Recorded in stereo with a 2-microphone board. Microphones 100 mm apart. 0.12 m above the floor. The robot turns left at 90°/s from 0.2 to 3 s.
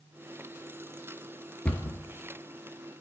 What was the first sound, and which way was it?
A cupboard door, 10° left (ahead or behind).